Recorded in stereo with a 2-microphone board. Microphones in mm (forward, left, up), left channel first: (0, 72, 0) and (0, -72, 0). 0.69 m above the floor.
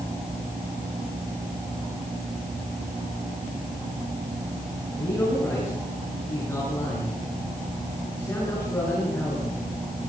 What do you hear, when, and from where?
4.9 s a man speaking: 20° left (ahead or behind), 8.5 m